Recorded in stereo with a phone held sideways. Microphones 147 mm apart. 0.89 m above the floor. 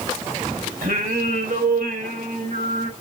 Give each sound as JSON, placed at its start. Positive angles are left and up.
{"t": 0.8, "sound": "singing", "side_deg": -70, "distance_m": 2.0}